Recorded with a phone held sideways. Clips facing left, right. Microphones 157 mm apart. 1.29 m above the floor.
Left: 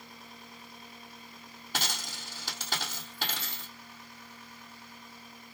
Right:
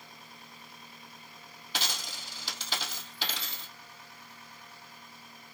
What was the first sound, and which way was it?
A dropped coin, 50° left (ahead or behind).